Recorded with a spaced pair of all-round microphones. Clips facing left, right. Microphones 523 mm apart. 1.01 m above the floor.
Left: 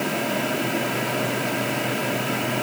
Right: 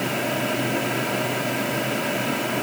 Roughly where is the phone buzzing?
No phone buzzing in this recording.